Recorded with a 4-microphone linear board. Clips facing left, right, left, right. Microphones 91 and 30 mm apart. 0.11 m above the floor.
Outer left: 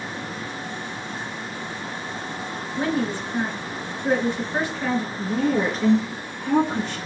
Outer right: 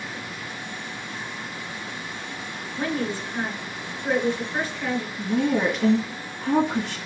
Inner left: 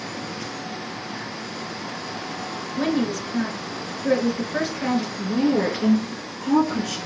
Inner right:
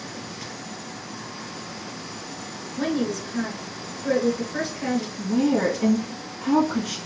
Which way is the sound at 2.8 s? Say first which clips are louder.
Outer left 3 dB, inner left 2 dB; 15° left (ahead or behind).